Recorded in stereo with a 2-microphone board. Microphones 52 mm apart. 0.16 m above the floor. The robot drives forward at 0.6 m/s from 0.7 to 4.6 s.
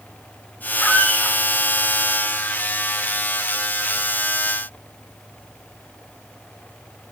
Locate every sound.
0.8 s a squeak: 35° left (ahead or behind), 6 m